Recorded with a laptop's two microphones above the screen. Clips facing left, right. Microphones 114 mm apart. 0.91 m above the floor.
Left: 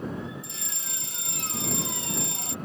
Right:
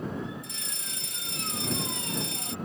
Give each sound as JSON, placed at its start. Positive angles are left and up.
{"t": 0.4, "sound": "a fire alarm", "side_deg": 30}